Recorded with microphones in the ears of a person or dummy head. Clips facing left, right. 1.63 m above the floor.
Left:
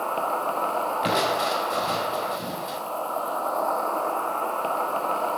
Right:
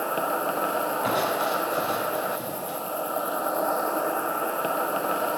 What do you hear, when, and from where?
0.0 s an insect: 15° right (ahead or behind), 0.8 m
1.0 s crushing: 30° left (ahead or behind), 7 m